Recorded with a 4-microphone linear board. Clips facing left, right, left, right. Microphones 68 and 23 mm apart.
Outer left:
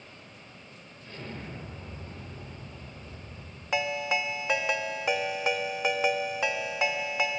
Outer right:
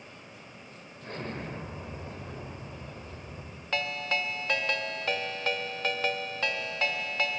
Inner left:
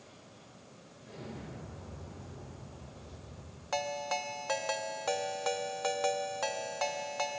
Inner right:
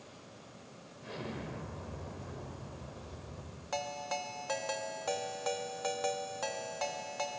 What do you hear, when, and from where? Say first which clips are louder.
1.0 s an explosion: outer right 4 dB, inner right 4 dB; 50° right (ahead or behind), 4.5 m
3.7 s a ringtone: outer left 3 dB, inner left 3 dB; 15° left (ahead or behind), 1.3 m